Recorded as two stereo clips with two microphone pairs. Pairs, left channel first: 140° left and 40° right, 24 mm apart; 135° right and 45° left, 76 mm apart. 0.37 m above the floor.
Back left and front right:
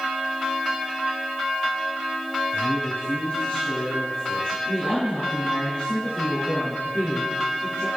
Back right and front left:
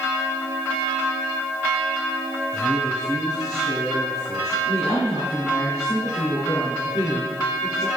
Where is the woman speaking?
175° left, 6 m.